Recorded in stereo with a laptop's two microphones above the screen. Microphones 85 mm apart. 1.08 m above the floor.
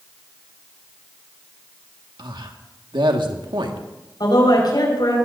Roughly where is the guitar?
No guitar in this recording.